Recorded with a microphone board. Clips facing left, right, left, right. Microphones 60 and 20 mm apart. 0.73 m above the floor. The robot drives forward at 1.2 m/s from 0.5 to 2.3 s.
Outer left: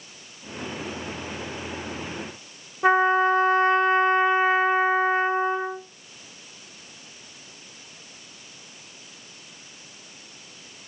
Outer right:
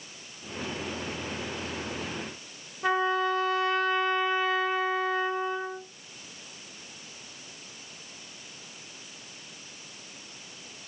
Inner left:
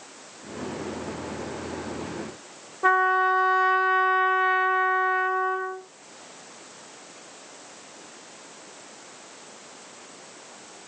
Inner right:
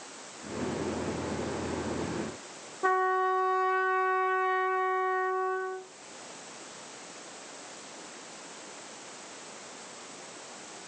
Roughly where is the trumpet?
Left.